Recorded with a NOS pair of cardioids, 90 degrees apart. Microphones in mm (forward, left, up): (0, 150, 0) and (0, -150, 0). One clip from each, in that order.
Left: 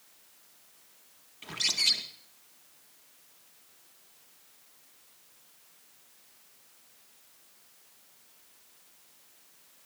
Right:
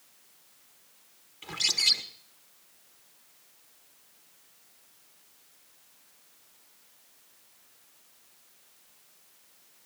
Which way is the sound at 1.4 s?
Straight ahead.